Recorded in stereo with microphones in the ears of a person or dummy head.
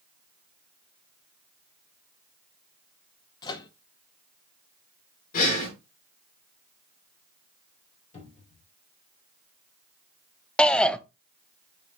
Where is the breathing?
45° left (ahead or behind), 2.5 m.